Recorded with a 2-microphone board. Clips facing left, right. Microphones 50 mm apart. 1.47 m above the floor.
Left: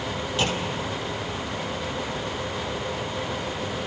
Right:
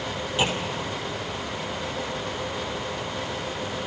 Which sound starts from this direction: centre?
A clunk, at 0.4 s.